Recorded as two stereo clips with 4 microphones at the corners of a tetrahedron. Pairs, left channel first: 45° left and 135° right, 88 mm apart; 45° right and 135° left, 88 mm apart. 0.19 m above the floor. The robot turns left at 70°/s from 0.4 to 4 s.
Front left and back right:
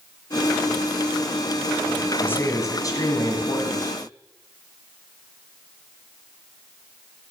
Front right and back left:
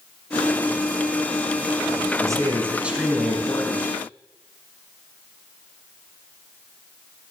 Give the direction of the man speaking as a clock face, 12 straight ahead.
8 o'clock.